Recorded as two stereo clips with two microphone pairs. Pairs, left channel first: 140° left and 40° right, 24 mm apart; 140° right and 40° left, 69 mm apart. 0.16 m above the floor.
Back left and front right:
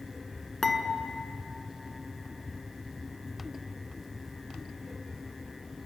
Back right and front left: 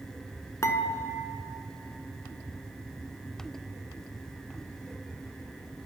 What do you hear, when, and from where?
0.6 s dishes clattering: 150° right, 1.0 m